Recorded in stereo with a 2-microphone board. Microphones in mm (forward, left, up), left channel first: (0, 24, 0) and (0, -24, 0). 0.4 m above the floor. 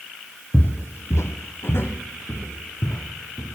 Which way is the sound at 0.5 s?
35° left (ahead or behind).